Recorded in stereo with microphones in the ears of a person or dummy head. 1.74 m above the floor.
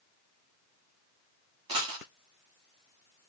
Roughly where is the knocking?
I don't hear knocking.